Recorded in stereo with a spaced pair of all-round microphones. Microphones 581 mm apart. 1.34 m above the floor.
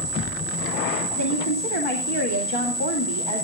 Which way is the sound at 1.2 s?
45° left (ahead or behind).